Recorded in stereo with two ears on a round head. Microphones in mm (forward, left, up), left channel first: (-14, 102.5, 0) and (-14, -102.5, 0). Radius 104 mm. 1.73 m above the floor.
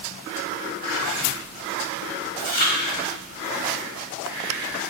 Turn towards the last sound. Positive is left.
turn(degrees=40)  # may be behind; listen again after turning